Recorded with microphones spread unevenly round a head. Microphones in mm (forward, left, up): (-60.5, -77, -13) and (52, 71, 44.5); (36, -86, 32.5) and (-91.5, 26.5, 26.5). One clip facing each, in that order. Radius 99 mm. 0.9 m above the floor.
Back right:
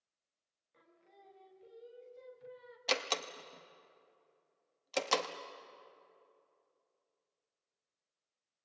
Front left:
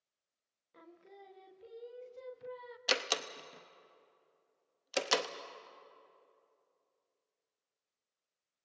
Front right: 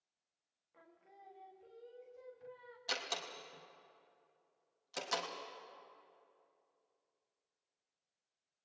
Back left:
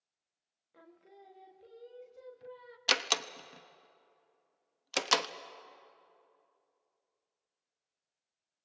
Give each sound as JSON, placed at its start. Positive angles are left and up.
{"t": 0.7, "sound": "singing", "azimuth_deg": 85, "distance_m": 1.0}
{"t": 2.9, "sound": "a door slam", "azimuth_deg": 135, "distance_m": 0.8}